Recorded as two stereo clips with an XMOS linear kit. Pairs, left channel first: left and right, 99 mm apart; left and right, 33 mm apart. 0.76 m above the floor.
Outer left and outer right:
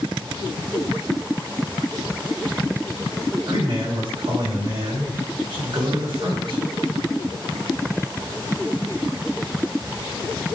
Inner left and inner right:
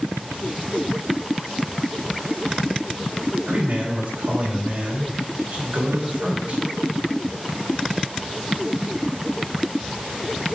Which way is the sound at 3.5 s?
65° right (ahead or behind).